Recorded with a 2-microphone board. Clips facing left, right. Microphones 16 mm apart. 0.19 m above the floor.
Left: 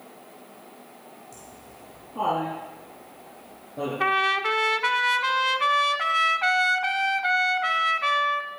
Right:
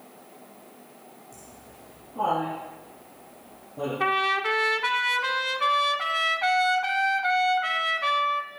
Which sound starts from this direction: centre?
A trumpet, at 4.0 s.